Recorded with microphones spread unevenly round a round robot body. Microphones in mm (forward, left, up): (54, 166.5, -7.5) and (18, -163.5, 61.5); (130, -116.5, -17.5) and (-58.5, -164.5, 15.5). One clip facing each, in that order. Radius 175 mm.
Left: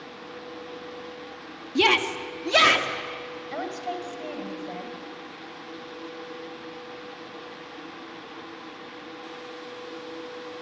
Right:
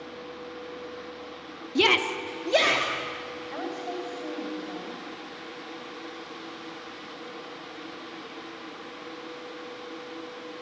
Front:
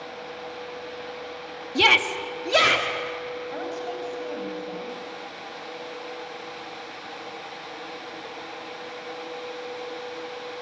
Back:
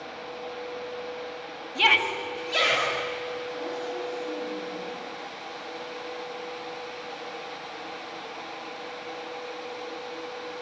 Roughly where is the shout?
Ahead.